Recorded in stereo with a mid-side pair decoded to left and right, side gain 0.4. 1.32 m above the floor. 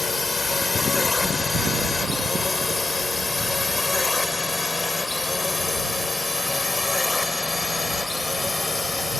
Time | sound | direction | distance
0.0 | a drone | 30° left | ?